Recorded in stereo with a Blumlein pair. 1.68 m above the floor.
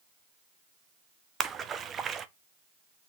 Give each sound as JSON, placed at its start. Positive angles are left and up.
{"t": 1.4, "sound": "a splash", "azimuth_deg": -20, "distance_m": 0.7}